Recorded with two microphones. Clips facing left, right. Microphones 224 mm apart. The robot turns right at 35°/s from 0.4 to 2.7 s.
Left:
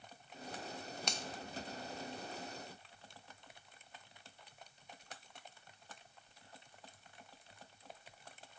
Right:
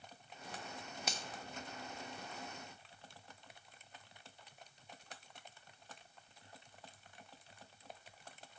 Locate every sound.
1.1 s a finger snap: 5° right (ahead or behind), 0.6 m; by 1.2 s centre (ahead or behind), 0.6 m